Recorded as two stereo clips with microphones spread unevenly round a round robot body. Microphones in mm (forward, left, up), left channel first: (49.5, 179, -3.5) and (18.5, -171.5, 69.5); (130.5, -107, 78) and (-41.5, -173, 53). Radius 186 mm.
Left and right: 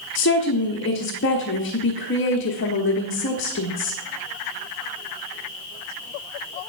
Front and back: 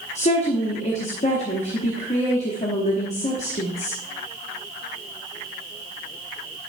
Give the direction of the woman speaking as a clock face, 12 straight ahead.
10 o'clock.